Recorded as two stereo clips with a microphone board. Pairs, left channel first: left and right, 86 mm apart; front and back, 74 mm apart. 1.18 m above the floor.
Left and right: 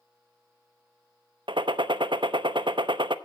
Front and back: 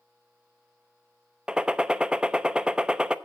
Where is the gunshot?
105° right, 0.8 m.